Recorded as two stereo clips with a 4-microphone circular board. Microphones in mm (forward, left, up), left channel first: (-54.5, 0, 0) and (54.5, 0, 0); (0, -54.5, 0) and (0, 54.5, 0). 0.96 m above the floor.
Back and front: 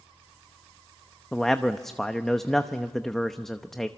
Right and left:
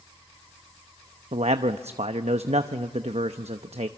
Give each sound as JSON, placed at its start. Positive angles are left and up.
{"t": 1.3, "sound": "a man speaking", "azimuth_deg": 95, "distance_m": 0.8}